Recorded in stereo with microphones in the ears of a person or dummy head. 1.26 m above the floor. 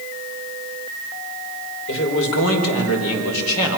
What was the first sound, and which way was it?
A man speaking, 70° left (ahead or behind).